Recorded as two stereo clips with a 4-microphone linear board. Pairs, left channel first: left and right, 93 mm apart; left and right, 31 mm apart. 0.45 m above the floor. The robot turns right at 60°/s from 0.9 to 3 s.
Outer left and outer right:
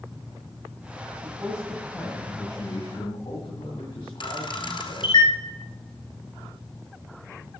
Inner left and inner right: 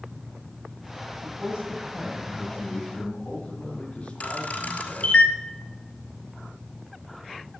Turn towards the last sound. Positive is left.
turn(degrees=60)  # may be behind; listen again after turning